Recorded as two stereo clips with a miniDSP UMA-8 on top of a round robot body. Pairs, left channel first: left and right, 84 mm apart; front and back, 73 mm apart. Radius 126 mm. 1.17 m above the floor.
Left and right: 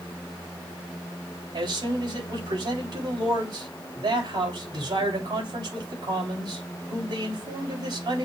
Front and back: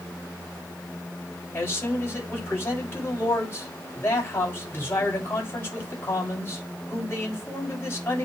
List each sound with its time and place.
1.5 s a man speaking: 60° right, 6.5 m